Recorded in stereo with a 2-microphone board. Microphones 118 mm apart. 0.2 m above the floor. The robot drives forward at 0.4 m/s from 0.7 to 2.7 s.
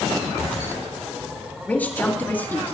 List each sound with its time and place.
1.7 s a woman speaking: 15° left (ahead or behind), 3.5 m